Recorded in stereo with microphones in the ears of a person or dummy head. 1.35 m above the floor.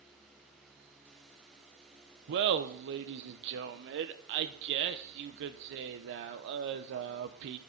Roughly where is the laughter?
Right.